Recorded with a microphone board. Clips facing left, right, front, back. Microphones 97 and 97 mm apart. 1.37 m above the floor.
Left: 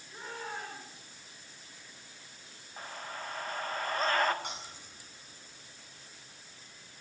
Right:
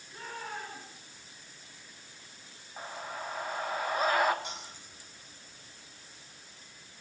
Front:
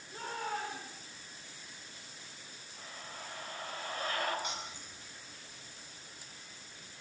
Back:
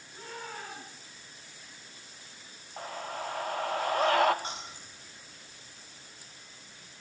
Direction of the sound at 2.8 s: 170° right.